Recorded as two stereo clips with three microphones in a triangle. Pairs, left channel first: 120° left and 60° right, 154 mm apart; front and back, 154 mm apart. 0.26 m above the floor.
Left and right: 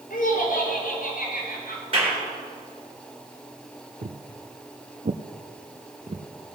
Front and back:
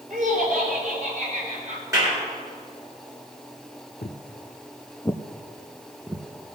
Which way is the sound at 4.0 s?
35° right.